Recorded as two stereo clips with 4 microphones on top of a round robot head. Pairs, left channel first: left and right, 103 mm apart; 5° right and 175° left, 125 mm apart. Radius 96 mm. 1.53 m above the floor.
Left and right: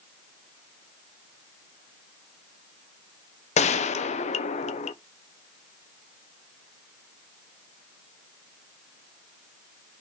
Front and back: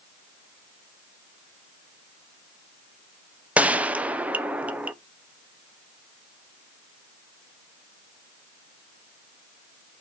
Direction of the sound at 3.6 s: 95° left.